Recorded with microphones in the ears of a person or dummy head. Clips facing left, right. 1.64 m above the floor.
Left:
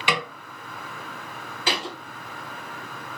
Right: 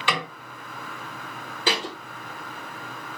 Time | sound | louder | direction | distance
0.1 | a snare drum | left 1 dB | 15° left (ahead or behind) | 1.1 m
1.7 | a thud | right 2 dB | 30° right (ahead or behind) | 1.9 m